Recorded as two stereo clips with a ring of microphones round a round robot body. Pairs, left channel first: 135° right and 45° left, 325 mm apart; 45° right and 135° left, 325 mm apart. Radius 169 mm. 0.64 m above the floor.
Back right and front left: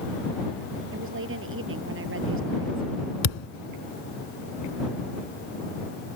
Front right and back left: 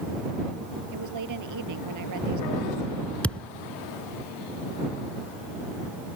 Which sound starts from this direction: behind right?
A thud, at 3.2 s.